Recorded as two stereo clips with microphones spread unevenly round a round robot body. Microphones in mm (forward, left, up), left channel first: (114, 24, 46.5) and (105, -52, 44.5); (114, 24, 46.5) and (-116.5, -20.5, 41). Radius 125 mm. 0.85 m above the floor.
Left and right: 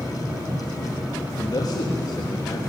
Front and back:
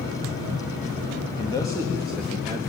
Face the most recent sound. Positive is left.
turn(degrees=125)